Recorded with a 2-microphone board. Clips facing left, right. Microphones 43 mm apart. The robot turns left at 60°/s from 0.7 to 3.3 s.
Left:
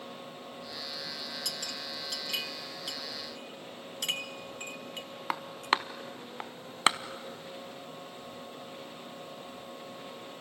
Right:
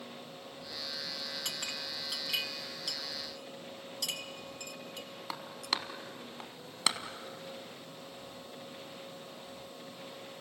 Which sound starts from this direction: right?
A clink, at 1.4 s.